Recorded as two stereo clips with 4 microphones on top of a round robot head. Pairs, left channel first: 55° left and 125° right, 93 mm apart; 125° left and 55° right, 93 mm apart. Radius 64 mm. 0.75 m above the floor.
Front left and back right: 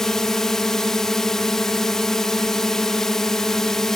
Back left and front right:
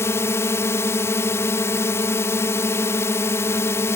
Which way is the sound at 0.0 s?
135° left.